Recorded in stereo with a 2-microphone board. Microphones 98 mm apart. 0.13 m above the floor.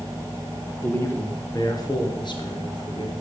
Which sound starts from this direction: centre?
A man speaking, at 0.8 s.